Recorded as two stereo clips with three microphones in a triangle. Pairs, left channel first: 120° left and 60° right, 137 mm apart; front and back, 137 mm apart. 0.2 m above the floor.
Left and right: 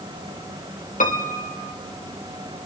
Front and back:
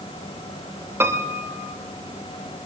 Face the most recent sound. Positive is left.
turn(degrees=110)